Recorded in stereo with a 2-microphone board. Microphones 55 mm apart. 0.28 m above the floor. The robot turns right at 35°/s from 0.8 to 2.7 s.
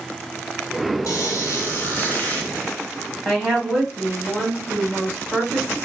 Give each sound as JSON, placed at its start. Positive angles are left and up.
{"t": 1.1, "sound": "a squeak", "azimuth_deg": 110, "distance_m": 1.5}
{"t": 3.2, "sound": "a woman speaking", "side_deg": 0, "distance_m": 1.7}